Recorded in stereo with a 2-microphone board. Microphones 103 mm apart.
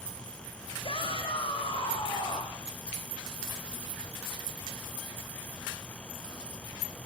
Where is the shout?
60° left (ahead or behind), 6.5 m; by 2.6 s 55° left (ahead or behind), 7 m.